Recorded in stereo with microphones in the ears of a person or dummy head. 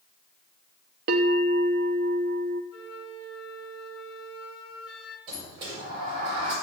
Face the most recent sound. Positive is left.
turn(degrees=-30)  # may be behind; listen again after turning